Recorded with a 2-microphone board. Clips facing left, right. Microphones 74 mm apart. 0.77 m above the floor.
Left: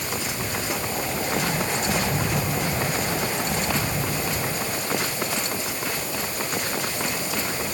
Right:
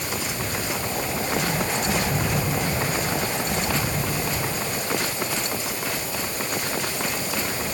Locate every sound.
Only background noise.